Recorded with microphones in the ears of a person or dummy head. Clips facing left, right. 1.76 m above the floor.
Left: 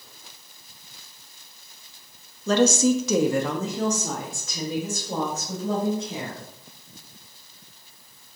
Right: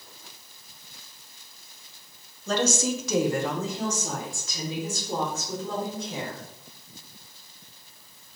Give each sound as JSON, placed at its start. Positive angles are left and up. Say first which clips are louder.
{"t": 2.5, "sound": "a woman speaking", "louder": "left 7 dB", "side_deg": 55, "distance_m": 0.7}